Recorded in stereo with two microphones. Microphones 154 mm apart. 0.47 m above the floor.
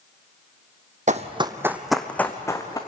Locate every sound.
1.1 s running footsteps: 55° right (ahead or behind), 1.2 m; by 2.8 s 25° left (ahead or behind), 2.5 m